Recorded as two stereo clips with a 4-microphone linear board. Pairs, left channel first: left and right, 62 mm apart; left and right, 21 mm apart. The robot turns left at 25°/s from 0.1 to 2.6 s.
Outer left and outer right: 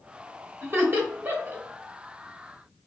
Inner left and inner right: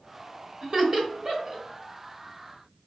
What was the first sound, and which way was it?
Laughter, 35° right (ahead or behind).